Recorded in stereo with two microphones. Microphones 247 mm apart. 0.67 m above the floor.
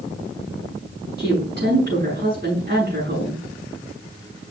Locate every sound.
1.2 s a woman speaking: 40° right (ahead or behind), 5.5 m